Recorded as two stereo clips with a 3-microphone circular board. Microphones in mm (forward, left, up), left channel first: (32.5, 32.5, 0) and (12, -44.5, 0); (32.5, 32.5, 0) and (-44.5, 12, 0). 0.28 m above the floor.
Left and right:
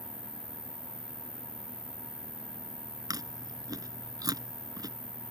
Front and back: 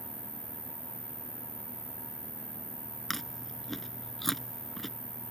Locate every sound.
0.0 s an insect: 155° right
3.1 s chewing: 70° right